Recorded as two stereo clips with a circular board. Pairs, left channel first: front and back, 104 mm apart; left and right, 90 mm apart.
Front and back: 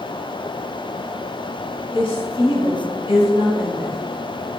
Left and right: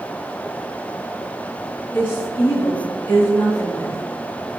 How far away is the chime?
No chime in this recording.